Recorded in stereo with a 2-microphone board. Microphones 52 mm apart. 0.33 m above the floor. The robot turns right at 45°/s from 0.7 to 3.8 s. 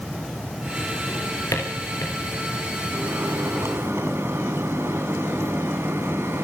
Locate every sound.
1.1 s a drawer: 55° left (ahead or behind), 8 m; by 2.2 s 80° left, 8 m
2.9 s a microwave: 105° right, 2.5 m; by 6.4 s 65° right, 2.5 m